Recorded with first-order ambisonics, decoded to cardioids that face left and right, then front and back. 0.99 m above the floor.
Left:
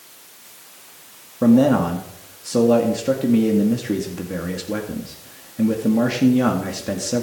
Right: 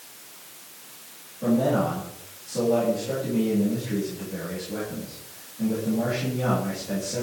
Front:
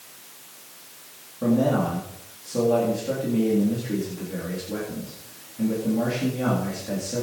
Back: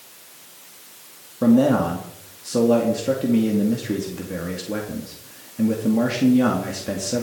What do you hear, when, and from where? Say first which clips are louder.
1.4 s a man speaking: left 7 dB, back 5 dB; 120° left, 2 m